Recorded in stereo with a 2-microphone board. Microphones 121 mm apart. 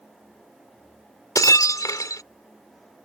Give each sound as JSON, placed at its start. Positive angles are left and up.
{"t": 1.4, "sound": "breaking glass", "side_deg": 30}